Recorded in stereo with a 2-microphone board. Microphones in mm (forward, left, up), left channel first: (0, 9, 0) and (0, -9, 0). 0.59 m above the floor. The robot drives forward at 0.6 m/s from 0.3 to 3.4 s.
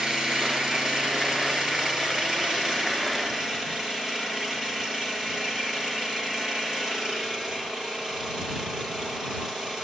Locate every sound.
0.0 s an engine running: 40° right (ahead or behind), 6.5 m; by 9.8 s 30° right (ahead or behind), 8 m